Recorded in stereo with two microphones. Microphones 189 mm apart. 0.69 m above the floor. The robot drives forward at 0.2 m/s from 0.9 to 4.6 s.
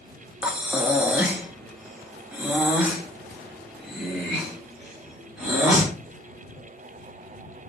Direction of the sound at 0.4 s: 5° right (ahead or behind).